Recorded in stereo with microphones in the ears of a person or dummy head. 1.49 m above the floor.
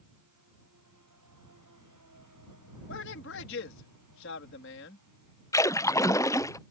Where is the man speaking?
65° left (ahead or behind).